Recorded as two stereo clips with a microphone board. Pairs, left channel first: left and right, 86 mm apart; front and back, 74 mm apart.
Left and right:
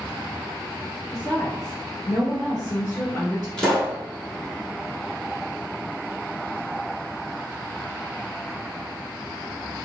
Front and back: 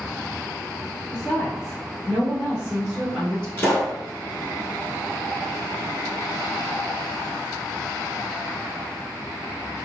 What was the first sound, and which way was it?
A woman speaking, 60° left.